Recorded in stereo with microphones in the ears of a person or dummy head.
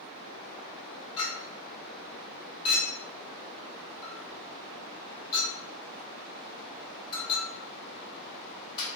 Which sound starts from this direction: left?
A clink, at 1.2 s.